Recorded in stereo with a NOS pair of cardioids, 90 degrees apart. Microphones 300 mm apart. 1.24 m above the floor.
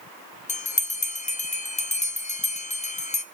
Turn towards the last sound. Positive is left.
turn(degrees=25)